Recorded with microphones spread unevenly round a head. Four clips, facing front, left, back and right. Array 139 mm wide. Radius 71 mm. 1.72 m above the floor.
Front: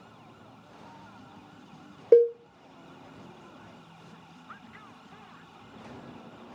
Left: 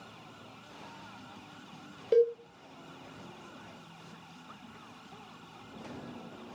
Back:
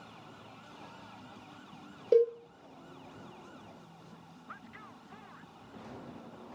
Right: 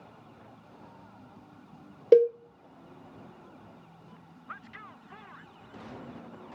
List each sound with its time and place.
2.1 s a cowbell: 60° right, 0.6 m